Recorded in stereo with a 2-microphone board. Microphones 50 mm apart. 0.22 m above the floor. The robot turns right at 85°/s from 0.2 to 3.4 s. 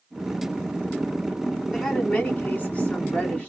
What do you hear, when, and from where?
1.7 s a woman speaking: 5° right, 1.9 m; by 3.5 s 135° left, 1.9 m